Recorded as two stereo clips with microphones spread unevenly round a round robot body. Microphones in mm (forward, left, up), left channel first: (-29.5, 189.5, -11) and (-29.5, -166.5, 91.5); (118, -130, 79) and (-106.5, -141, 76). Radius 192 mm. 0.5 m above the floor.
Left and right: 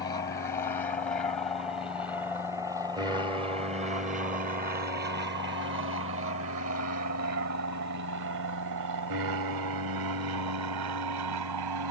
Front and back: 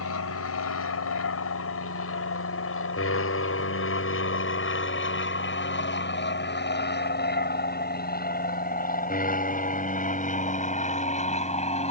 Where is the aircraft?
20° left; by 11.9 s 60° right.